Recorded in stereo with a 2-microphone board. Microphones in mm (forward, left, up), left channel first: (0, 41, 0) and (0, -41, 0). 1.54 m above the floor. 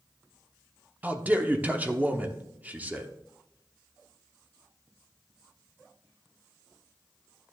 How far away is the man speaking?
About 0.8 m.